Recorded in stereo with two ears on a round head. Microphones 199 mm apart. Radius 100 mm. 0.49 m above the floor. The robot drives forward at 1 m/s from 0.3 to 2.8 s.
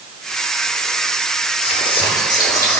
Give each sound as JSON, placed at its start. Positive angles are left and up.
{"t": 1.6, "sound": "whispering", "side_deg": 30, "distance_m": 0.9}